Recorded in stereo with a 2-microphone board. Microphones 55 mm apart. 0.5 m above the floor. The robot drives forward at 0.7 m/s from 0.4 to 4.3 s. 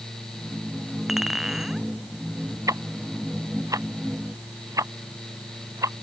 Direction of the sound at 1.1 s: 10° right (ahead or behind).